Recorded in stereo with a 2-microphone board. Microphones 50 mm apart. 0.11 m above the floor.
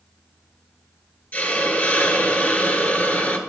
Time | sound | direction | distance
1.3 | a hiss | 35° left (ahead or behind) | 1.2 m